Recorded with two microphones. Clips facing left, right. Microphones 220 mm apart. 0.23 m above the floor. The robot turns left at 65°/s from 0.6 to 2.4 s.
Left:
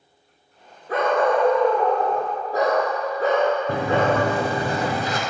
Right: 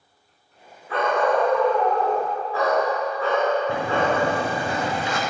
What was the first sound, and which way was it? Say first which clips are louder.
A dog barking: left 2 dB; 140° left.